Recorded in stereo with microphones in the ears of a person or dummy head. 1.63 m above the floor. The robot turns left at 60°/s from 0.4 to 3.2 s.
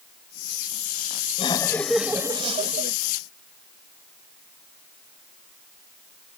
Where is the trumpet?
No trumpet in this recording.